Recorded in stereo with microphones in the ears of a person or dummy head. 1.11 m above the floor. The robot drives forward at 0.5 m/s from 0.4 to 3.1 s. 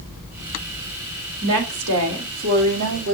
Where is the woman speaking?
70° right (ahead or behind), 2.5 m; by 3.1 s 80° right, 2.5 m.